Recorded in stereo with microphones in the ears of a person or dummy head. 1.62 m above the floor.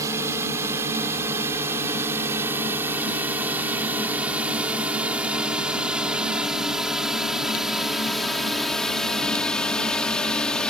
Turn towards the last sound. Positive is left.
turn(degrees=5)  # may be behind; listen again after turning